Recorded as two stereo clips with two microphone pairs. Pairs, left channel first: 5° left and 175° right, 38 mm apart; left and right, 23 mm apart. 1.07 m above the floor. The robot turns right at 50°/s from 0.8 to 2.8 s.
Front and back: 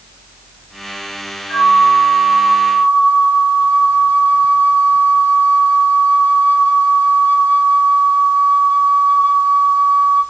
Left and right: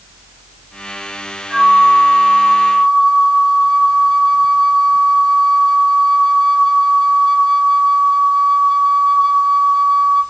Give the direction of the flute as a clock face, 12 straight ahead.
1 o'clock.